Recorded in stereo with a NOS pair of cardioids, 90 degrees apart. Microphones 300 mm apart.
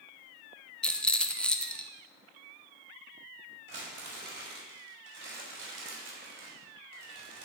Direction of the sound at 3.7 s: 40° right.